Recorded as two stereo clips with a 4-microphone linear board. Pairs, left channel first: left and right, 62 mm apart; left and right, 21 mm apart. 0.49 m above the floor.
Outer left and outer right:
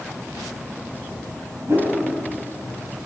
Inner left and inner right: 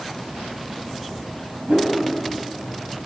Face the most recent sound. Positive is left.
turn(degrees=-40)  # may be behind; listen again after turning